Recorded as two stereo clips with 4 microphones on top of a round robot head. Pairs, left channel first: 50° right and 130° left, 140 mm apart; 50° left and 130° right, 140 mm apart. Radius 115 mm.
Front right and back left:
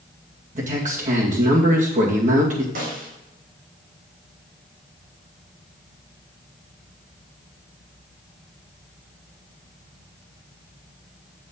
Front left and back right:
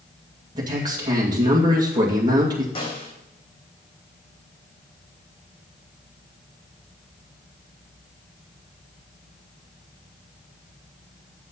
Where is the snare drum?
100° left, 4 m.